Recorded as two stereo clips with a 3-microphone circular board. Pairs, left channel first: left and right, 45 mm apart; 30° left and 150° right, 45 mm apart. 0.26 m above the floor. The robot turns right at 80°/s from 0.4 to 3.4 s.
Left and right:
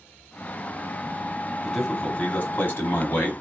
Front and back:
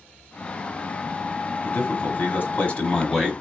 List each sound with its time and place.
1.6 s a man speaking: 10° right, 1.4 m; by 3.3 s 125° left, 1.4 m